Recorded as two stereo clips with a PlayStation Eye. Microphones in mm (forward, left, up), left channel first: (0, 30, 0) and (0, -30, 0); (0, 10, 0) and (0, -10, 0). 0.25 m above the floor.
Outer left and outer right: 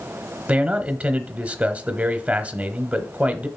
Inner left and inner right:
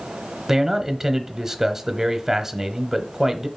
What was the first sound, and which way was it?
A man speaking, 20° right (ahead or behind).